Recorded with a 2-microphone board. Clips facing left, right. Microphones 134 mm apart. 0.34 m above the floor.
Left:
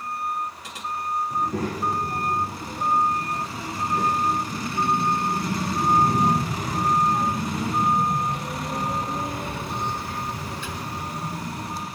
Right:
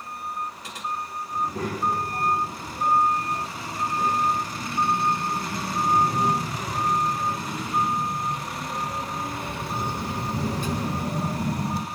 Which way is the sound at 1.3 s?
70° left (ahead or behind).